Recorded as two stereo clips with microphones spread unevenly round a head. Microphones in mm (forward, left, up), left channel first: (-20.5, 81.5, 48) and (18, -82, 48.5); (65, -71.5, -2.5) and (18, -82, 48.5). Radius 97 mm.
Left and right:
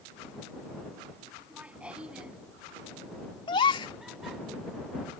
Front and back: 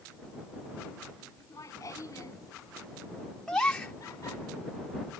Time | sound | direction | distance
1.4 | laughter | 5° left | ?
3.5 | a gasp | 160° left | ?